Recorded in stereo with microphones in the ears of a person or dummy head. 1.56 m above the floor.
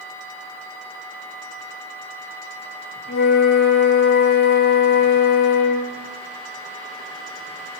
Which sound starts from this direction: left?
A flute, at 3.1 s.